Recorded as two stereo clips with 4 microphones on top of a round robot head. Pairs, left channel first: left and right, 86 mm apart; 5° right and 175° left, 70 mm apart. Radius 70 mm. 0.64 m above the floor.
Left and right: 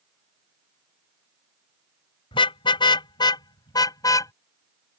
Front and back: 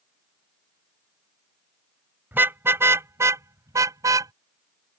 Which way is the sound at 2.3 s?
115° left.